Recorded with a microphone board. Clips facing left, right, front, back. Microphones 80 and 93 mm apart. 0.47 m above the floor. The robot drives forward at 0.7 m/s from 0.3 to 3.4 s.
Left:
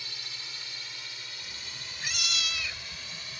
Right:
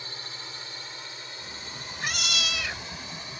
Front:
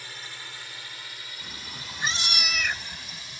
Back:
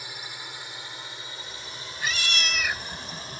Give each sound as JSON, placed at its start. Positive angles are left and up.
{"t": 0.0, "sound": "a drone", "azimuth_deg": -115}
{"t": 1.4, "sound": "a cat meowing", "azimuth_deg": -35}